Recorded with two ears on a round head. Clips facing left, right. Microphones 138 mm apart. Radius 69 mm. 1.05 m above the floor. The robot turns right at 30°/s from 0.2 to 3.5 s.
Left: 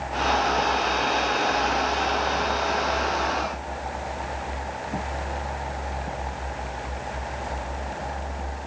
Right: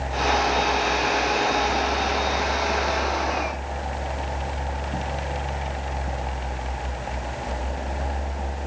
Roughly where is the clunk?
I don't hear a clunk.